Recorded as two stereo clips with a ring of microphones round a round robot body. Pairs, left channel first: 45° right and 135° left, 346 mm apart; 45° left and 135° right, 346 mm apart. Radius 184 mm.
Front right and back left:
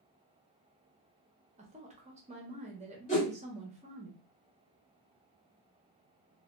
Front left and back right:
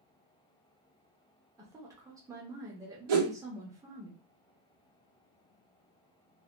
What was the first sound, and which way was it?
A woman speaking, 160° left.